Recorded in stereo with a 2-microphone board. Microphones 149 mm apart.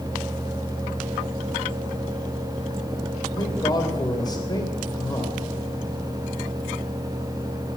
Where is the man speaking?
25° left (ahead or behind), 3 m.